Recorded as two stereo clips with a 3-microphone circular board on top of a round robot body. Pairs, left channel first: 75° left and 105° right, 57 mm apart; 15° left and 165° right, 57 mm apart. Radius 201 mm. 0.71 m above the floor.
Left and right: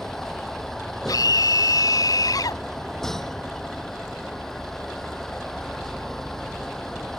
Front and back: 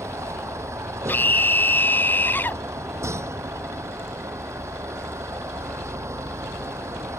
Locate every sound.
0.0 s a vehicle: 160° left
1.1 s a scream: 70° left